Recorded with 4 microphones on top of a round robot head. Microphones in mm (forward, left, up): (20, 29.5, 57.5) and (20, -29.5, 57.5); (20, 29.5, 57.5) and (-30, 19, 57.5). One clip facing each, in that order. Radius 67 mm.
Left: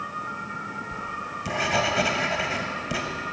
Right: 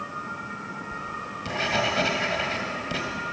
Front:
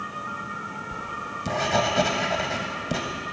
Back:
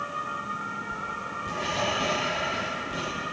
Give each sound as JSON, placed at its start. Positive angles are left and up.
{"t": 0.9, "sound": "writing", "azimuth_deg": 10, "distance_m": 1.7}